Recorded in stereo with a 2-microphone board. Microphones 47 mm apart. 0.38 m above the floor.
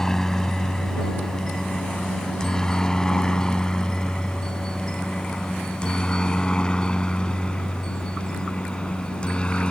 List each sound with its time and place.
0.0 s a helicopter: 10° left (ahead or behind); by 9.7 s 20° left (ahead or behind)